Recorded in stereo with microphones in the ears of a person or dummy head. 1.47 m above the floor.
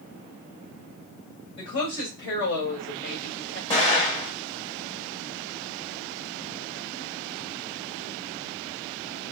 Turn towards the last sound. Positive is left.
turn(degrees=30)  # may be behind; listen again after turning